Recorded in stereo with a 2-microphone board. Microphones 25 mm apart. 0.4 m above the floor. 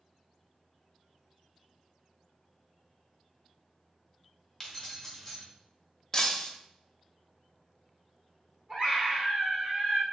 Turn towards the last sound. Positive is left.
turn(degrees=-45)  # may be behind; listen again after turning